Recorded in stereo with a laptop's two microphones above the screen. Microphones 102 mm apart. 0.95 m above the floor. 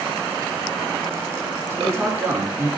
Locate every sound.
1.7 s a man speaking: 15° right (ahead or behind), 2 m